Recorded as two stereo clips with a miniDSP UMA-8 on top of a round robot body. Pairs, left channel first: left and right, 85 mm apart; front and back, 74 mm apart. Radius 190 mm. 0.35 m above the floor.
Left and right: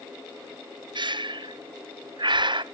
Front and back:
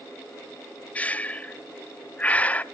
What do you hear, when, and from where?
0.9 s breathing: 70° right, 0.6 m